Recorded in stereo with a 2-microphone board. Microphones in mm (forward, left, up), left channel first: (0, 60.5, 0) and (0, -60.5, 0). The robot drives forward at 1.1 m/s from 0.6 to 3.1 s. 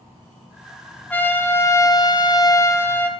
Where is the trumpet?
15° left (ahead or behind), 1.3 m.